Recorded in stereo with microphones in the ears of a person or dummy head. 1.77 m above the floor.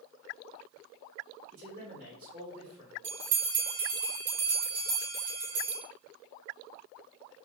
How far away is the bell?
About 1.0 m.